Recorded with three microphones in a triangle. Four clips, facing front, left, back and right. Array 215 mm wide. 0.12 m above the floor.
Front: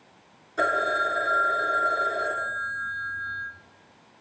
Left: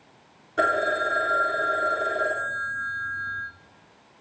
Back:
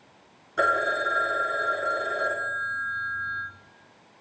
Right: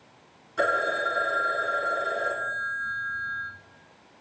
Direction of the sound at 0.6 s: 110° left.